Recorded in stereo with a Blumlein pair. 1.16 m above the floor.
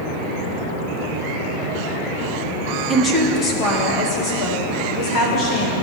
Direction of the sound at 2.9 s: 10° left.